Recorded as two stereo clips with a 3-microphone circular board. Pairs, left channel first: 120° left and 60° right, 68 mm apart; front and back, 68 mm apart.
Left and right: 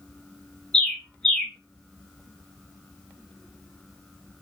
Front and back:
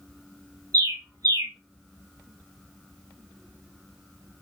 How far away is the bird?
About 0.7 m.